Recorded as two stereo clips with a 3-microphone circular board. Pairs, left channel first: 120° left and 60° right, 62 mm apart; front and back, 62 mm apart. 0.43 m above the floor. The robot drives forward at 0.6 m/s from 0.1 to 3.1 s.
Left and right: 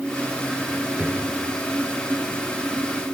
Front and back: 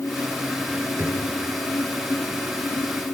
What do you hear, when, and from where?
1.0 s a drawer: 125° right, 3.5 m